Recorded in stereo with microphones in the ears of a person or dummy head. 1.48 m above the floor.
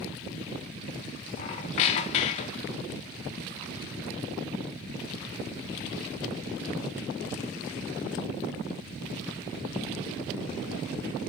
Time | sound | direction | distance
1.4 | a squeak | 40° left (ahead or behind) | 0.8 m